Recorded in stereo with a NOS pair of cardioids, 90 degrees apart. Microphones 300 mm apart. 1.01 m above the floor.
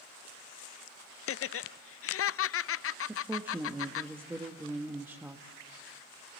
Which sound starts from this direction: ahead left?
Laughter, at 1.3 s.